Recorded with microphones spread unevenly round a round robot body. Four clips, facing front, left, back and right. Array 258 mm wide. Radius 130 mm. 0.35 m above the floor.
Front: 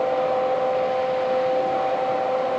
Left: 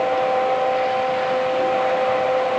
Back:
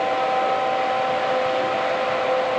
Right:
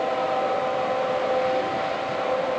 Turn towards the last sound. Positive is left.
No sound to turn to.